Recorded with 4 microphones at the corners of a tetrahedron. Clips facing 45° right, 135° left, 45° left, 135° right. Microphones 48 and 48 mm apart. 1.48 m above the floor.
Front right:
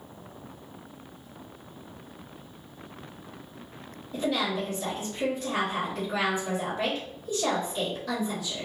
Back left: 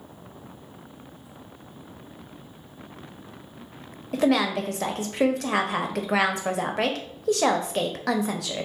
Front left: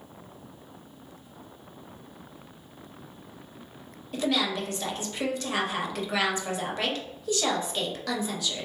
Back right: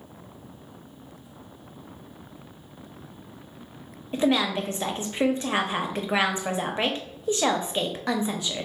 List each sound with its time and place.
4.1 s a woman speaking: 160° left, 0.6 m